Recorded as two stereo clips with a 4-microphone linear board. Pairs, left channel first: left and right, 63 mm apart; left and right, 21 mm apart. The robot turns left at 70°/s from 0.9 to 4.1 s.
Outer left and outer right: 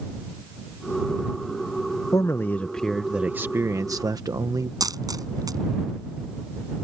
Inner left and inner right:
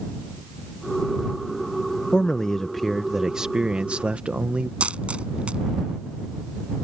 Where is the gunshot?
No gunshot in this recording.